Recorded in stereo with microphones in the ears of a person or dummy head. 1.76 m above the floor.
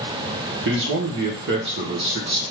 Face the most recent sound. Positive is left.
turn(degrees=-60)  # may be behind; listen again after turning